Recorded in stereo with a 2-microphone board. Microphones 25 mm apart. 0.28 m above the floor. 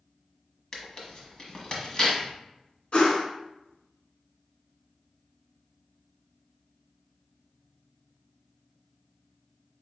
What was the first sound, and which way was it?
Tearing paper, 40° left (ahead or behind).